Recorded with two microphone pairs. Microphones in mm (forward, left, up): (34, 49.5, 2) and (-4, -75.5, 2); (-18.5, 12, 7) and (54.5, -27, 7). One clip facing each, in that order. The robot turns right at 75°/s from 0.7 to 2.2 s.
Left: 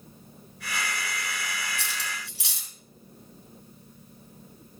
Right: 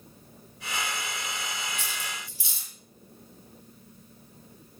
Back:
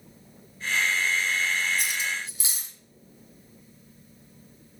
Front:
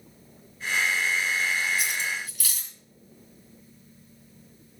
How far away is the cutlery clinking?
About 2.5 m.